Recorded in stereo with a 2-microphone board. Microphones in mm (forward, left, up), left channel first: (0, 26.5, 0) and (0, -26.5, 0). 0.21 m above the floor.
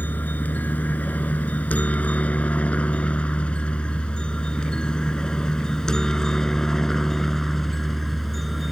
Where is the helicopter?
35° left (ahead or behind); by 8.7 s centre (ahead or behind).